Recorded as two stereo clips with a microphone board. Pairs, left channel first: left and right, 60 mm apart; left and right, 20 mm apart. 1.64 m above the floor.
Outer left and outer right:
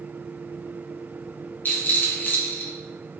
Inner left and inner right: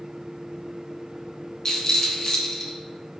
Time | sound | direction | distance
1.6 | a rattle | 35° left (ahead or behind) | 0.7 m